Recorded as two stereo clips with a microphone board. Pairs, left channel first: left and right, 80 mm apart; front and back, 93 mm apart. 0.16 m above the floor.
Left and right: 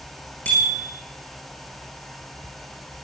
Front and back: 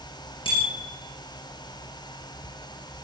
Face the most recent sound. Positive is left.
turn(degrees=15)